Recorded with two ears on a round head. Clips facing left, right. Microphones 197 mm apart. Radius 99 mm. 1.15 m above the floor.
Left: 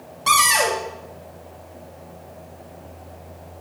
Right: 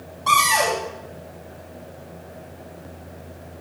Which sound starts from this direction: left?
A cupboard door, at 0.3 s.